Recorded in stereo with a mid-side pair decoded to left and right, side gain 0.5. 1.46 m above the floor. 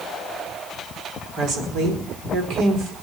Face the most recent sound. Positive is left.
turn(degrees=-65)